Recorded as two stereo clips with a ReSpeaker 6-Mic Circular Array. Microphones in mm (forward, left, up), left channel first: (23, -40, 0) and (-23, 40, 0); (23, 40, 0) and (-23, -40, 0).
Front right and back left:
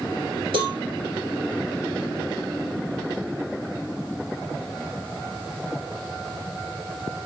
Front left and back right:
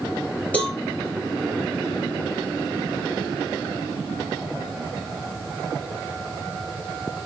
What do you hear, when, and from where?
0.5 s a cowbell: 130° left, 5 m